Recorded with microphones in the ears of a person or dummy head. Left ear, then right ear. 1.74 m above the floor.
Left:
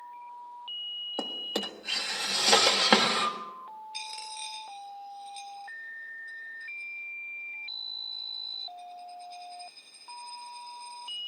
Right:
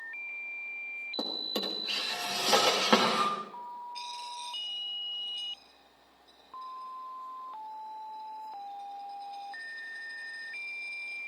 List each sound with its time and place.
1.2 s a drawer: 35° left (ahead or behind), 1.8 m
3.9 s a dropped coin: 65° left (ahead or behind), 3 m